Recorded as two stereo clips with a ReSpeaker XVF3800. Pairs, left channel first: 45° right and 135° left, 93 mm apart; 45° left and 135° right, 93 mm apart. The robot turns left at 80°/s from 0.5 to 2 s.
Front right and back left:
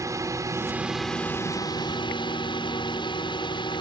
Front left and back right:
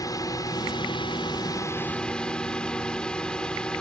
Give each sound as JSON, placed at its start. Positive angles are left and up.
{"t": 0.0, "sound": "a drone", "azimuth_deg": 85}